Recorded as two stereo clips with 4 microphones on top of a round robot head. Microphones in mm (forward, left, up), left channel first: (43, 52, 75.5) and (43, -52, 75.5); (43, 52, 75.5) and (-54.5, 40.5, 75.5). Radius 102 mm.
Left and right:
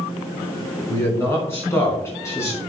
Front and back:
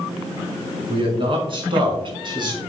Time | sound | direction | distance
0.9 | a man speaking | 160° left | 5 m